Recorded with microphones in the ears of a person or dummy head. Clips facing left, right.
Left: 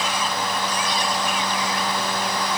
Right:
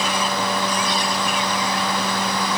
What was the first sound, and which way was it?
Only background noise.